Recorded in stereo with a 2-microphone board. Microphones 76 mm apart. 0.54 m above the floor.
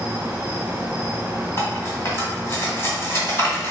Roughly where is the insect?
Right.